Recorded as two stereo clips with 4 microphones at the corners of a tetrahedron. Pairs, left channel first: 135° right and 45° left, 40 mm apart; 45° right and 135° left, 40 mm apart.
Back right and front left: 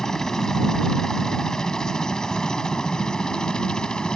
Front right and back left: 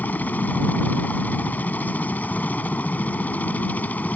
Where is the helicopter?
65° right; by 4.2 s 70° right.